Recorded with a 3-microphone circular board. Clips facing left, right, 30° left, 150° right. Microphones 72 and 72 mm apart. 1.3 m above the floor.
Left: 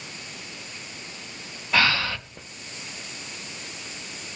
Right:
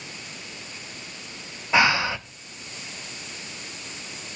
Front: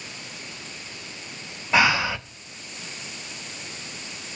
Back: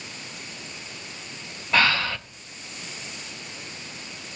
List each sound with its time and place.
1.7 s breathing: 35° right, 0.7 m